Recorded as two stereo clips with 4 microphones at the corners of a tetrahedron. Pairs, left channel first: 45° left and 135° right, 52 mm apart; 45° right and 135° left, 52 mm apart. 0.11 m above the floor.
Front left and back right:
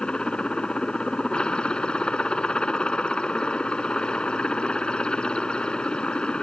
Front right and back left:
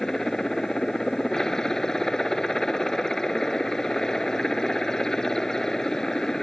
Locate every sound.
0.0 s a helicopter: 15° left